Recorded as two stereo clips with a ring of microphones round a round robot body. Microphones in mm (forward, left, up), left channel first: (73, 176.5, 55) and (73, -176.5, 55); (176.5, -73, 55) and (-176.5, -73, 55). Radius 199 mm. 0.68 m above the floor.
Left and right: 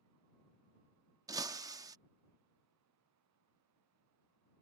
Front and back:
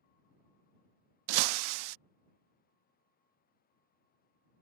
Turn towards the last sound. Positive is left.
turn(degrees=-170)